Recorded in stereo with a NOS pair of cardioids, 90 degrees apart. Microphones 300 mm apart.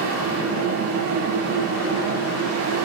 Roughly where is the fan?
Ahead right.